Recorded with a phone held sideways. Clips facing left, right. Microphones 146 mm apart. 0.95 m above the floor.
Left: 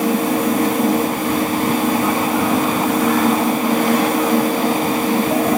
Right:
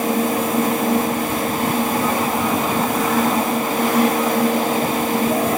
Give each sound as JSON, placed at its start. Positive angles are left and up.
{"t": 0.0, "sound": "a fan", "side_deg": 80, "distance_m": 3.5}